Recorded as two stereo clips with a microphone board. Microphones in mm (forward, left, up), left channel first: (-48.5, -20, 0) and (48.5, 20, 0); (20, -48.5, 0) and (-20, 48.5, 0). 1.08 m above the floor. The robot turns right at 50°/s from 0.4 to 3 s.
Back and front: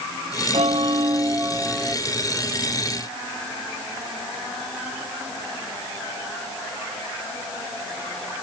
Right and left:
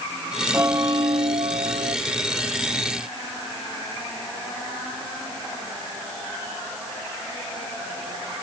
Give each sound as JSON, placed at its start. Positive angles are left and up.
{"t": 0.5, "sound": "a bell", "azimuth_deg": 45}